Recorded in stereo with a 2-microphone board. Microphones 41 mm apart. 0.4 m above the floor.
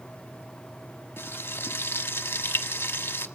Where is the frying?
75° left (ahead or behind), 1.3 m.